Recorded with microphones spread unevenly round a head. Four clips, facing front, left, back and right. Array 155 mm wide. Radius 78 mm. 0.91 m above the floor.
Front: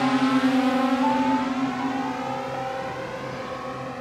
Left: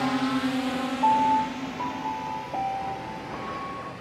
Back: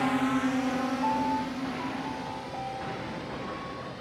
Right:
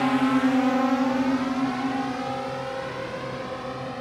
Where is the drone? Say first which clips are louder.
Right 4 dB, front 6 dB; 35° right; by 4.0 s 50° right.